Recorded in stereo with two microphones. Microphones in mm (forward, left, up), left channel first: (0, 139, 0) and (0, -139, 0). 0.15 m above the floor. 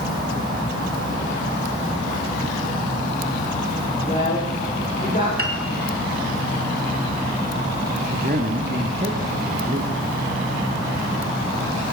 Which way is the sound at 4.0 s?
25° left (ahead or behind).